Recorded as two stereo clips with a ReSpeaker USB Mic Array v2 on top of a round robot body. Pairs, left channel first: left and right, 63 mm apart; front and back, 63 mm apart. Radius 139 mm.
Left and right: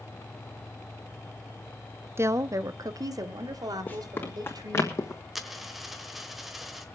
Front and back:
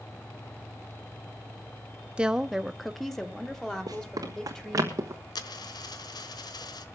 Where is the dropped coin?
Straight ahead, 1.2 m.